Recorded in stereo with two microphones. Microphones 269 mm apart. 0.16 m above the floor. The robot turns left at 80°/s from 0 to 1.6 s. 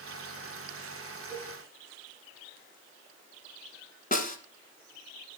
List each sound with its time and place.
1.3 s a cowbell: 25° left (ahead or behind), 6.5 m; by 1.6 s centre (ahead or behind), 6.5 m
4.1 s a snare drum: 30° left (ahead or behind), 1.1 m